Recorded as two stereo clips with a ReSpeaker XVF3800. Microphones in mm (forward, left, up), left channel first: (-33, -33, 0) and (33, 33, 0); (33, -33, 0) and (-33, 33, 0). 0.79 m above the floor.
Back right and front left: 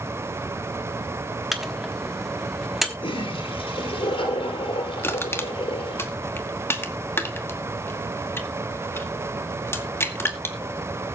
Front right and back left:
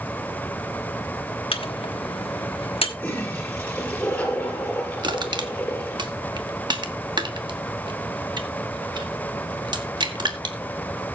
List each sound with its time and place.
1.5 s a microwave: 40° right, 1.1 m
3.0 s a toilet flushing: 120° right, 3 m
5.0 s crushing: 165° left, 1.1 m